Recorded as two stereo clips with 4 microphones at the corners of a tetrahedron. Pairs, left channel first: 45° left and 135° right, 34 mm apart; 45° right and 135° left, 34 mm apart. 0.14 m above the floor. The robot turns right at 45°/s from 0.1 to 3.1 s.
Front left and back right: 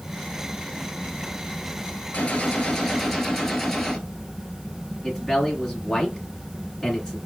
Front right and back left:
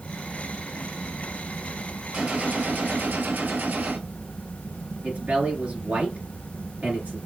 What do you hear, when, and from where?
2.1 s a gunshot: 80° left, 1.2 m; by 4.0 s 125° left, 1.2 m
5.0 s a man speaking: 115° left, 2 m